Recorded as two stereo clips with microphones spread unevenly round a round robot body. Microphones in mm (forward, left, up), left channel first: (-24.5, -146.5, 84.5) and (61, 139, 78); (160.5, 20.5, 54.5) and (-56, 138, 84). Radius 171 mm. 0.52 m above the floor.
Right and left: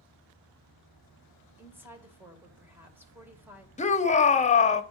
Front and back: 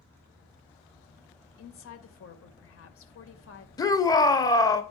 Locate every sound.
1.6 s a woman speaking: 10° right, 2.5 m
3.8 s a shout: 65° right, 1.2 m